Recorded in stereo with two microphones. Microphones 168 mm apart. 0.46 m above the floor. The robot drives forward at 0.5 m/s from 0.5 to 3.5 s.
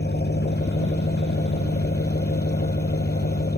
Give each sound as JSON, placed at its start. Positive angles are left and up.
{"t": 0.0, "sound": "an engine running", "side_deg": 85}